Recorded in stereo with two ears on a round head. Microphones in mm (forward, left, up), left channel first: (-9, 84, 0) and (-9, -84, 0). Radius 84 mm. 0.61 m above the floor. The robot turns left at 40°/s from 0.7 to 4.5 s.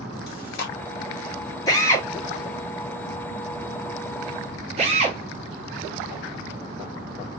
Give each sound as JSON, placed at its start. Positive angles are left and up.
{"t": 0.3, "sound": "chewing", "side_deg": 55, "distance_m": 1.1}
{"t": 1.7, "sound": "a drill", "side_deg": 20, "distance_m": 1.3}